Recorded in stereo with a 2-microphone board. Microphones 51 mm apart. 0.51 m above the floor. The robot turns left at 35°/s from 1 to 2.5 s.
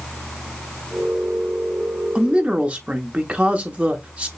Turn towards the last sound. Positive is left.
turn(degrees=-25)  # may be behind; listen again after turning